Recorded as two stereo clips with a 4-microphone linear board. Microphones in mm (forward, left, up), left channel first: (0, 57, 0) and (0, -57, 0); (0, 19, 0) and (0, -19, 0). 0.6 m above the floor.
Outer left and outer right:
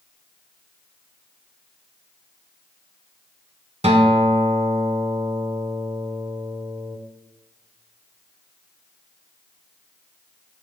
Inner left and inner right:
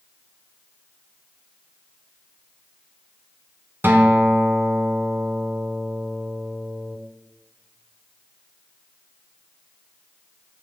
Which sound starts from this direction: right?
A guitar, at 3.8 s.